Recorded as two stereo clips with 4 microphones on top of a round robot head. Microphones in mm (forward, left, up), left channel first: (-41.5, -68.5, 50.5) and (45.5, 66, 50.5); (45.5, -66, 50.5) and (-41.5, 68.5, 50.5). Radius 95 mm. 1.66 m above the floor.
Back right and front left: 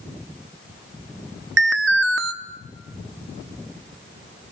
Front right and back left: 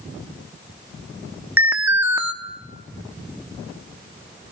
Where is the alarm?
45° left, 0.9 m.